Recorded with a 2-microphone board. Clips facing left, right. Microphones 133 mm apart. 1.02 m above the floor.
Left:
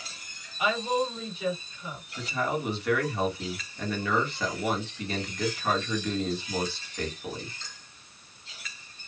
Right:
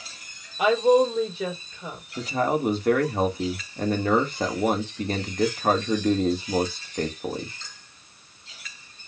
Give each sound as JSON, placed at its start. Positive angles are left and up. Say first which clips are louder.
{"t": 0.6, "sound": "a woman speaking", "louder": "right 9 dB", "side_deg": -75, "distance_m": 2.5}
{"t": 2.2, "sound": "a man speaking", "louder": "right 6 dB", "side_deg": -45, "distance_m": 1.8}